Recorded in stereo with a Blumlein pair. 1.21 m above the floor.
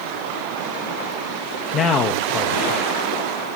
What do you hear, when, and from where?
1.7 s a man speaking: 30° left, 1.4 m